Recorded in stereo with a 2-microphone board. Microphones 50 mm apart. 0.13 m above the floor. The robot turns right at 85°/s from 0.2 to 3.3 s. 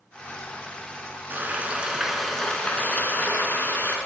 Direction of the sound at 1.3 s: 80° right.